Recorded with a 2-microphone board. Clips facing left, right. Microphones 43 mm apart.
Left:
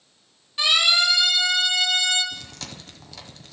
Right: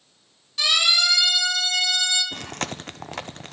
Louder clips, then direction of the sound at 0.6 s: Left 1 dB; 20° left (ahead or behind).